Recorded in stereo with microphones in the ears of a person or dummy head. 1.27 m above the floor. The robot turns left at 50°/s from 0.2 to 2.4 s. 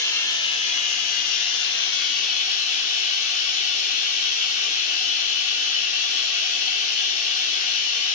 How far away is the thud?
No thud in this recording.